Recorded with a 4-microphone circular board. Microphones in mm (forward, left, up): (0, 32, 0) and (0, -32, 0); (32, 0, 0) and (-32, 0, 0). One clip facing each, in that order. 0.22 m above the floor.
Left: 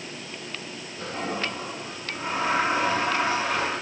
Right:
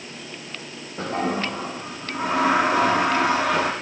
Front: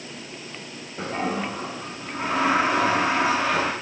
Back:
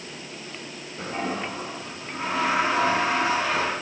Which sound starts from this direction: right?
A toilet flushing, at 1.0 s.